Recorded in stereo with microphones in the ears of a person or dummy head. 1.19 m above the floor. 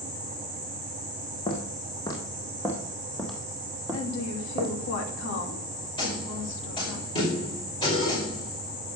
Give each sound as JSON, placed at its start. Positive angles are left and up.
{"t": 1.5, "sound": "footsteps", "side_deg": 25, "distance_m": 2.5}
{"t": 3.9, "sound": "a woman speaking", "side_deg": 65, "distance_m": 2.5}
{"t": 6.0, "sound": "a snare drum", "side_deg": 20, "distance_m": 5.0}